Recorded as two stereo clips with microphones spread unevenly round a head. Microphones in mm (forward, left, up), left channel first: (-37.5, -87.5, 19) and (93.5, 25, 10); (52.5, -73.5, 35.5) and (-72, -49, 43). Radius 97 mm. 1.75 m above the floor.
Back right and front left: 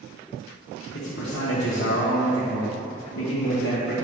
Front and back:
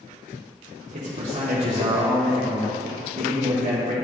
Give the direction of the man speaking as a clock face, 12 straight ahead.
5 o'clock.